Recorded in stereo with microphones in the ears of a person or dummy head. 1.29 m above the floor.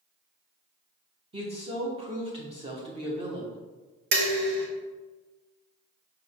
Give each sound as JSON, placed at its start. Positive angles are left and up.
{"t": 1.3, "sound": "a woman speaking", "side_deg": -25, "distance_m": 0.7}
{"t": 4.1, "sound": "dishes clattering", "side_deg": -55, "distance_m": 0.8}